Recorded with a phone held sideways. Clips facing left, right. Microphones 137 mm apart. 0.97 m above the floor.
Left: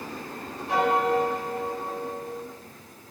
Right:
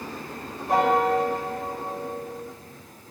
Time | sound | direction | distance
0.7 | a piano | 50° right (ahead or behind) | 5 m